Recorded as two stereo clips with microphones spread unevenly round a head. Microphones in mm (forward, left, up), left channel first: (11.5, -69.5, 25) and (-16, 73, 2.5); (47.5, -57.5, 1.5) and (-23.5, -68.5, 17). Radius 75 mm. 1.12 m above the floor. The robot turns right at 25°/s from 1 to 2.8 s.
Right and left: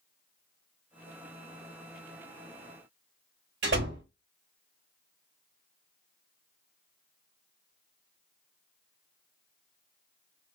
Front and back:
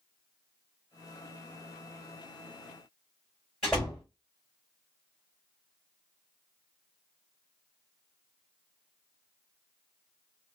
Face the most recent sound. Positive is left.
turn(degrees=100)